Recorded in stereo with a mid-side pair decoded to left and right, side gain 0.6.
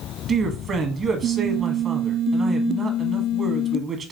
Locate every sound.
0.3 s a man speaking: 40° right, 1.0 m